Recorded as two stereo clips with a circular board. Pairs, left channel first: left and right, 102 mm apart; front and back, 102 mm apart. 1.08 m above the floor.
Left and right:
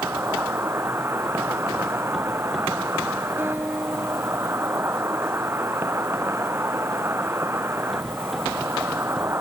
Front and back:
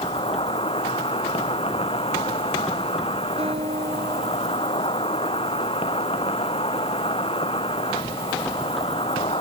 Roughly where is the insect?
Ahead right.